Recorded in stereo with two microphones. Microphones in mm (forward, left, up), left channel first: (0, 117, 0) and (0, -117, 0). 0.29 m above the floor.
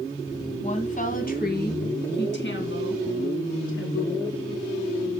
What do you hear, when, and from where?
0.6 s a woman speaking: 30° left (ahead or behind), 2 m; by 4.3 s 70° left (ahead or behind), 3.5 m